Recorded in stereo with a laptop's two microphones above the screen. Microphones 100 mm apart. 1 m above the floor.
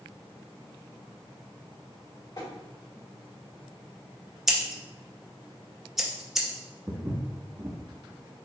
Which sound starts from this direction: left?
Tapping, at 2.4 s.